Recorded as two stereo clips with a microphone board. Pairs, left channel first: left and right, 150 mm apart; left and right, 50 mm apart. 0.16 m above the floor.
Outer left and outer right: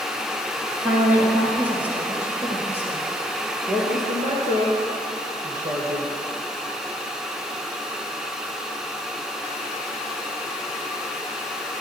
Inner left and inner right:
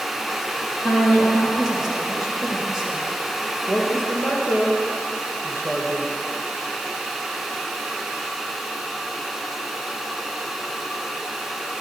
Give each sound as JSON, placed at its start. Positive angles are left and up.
{"t": 0.8, "sound": "a woman speaking", "side_deg": -10, "distance_m": 3.0}
{"t": 3.7, "sound": "a woman speaking", "side_deg": -50, "distance_m": 3.0}